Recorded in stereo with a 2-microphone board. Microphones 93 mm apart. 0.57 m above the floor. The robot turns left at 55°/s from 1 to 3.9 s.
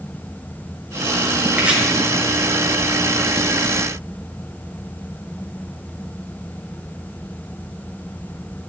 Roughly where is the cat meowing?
I don't hear a cat meowing.